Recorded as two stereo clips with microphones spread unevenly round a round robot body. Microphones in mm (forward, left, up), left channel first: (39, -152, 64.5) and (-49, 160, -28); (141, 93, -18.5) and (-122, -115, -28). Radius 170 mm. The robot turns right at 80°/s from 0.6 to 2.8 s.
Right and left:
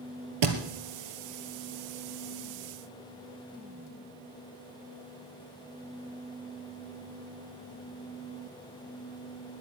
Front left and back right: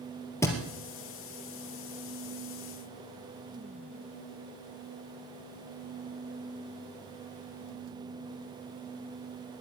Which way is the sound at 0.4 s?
120° left.